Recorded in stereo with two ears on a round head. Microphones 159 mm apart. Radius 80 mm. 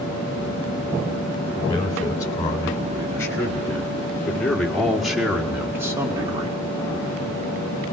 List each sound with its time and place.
1.6 s a man speaking: 20° left (ahead or behind), 4 m; by 6.6 s 25° right (ahead or behind), 1.5 m